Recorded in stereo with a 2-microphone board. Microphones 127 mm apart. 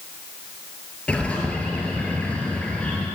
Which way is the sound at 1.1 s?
10° left (ahead or behind).